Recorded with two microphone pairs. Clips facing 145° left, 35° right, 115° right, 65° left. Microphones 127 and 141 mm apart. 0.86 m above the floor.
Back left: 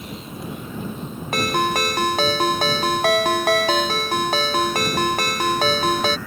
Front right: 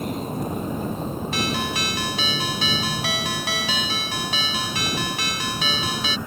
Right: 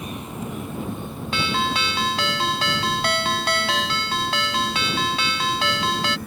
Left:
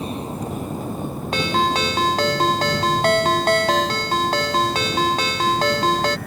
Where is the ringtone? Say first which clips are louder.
Back left 9 dB, left 4 dB; 110° left.